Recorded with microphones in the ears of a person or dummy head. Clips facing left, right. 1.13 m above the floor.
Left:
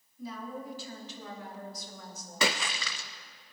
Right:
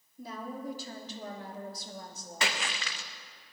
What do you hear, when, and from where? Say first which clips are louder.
0.2 s a woman speaking: even; 45° right (ahead or behind), 3 m; by 2.5 s 25° right (ahead or behind), 2 m
2.4 s a splash: left 4 dB; 75° left (ahead or behind), 0.8 m